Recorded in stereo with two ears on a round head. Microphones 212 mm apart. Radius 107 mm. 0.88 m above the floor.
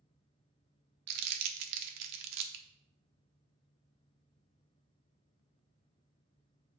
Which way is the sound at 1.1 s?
80° right.